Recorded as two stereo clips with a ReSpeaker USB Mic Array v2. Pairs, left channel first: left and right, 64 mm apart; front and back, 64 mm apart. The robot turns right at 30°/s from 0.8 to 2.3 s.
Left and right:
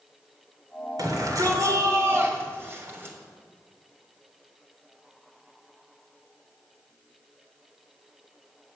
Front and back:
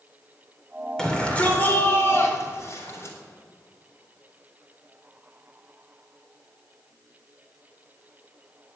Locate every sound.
1.0 s a shout: 80° right, 4 m; by 3.2 s 40° right, 4 m